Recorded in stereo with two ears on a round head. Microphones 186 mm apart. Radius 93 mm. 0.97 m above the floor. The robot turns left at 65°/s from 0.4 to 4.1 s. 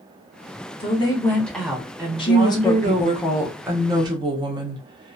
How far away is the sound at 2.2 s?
About 0.6 m.